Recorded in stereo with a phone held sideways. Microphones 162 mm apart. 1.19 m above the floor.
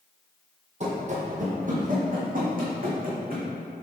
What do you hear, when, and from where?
0.8 s running footsteps: 45° right (ahead or behind), 1.7 m; by 3.5 s 65° right (ahead or behind), 3 m